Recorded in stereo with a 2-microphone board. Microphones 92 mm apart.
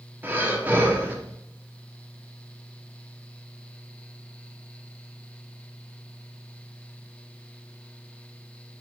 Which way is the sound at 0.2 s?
20° right (ahead or behind).